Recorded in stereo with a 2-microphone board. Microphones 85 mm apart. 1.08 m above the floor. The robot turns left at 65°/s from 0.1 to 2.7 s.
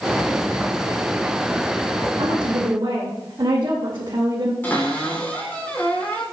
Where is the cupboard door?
20° left (ahead or behind), 3 m.